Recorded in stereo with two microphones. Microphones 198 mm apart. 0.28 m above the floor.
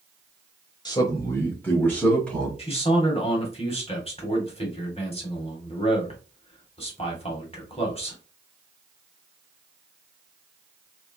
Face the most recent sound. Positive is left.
turn(degrees=30)  # may be behind; listen again after turning